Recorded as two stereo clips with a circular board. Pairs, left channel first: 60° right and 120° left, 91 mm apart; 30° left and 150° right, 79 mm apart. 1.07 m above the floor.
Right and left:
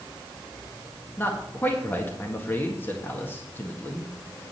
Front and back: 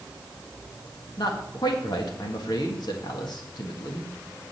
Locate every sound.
1.2 s a man speaking: 5° left, 1.6 m